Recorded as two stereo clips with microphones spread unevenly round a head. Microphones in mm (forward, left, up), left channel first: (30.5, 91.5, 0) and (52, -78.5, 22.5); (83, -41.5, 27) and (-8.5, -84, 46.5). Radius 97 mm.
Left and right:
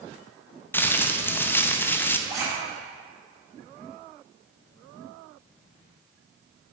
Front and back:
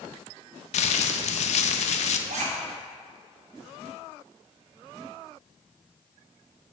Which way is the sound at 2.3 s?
160° right.